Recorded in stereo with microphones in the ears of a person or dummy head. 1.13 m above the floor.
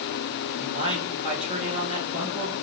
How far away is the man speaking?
About 2.5 m.